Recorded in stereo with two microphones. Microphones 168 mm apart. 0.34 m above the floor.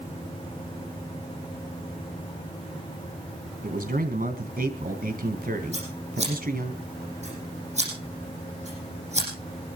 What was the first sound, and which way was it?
A man speaking, 60° right (ahead or behind).